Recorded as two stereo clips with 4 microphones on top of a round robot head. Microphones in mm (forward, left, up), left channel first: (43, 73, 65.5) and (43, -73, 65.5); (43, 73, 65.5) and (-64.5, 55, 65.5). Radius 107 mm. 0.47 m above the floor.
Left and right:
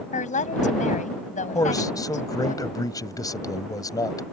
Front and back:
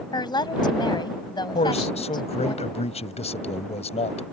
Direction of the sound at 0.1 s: 55° left.